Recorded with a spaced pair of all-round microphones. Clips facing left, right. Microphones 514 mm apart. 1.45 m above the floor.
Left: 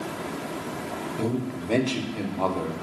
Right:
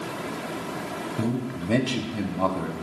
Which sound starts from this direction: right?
A man speaking, at 1.2 s.